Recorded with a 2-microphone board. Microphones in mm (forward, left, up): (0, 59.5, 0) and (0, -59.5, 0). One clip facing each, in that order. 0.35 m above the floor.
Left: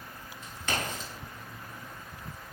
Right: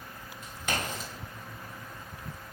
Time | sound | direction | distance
0.4 | a crack | 10° right (ahead or behind) | 1.4 m